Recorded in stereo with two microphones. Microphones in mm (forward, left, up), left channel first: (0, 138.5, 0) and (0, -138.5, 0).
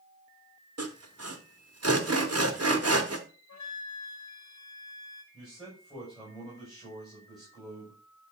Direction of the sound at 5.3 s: 15° right (ahead or behind).